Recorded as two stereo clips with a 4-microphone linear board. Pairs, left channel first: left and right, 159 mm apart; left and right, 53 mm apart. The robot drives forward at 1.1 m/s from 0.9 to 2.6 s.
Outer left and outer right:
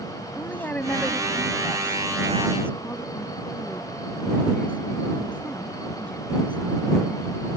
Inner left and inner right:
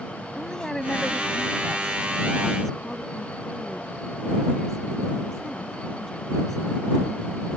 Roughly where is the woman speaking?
Centre.